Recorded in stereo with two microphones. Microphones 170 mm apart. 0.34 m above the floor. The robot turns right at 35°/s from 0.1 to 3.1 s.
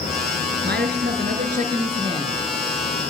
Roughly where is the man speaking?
Right.